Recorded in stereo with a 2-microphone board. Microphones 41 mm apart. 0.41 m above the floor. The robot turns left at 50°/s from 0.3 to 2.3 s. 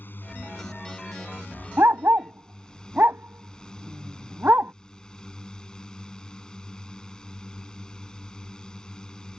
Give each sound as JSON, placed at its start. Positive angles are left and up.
{"t": 0.0, "sound": "a drone", "azimuth_deg": 120}
{"t": 1.8, "sound": "a dog barking", "side_deg": -85}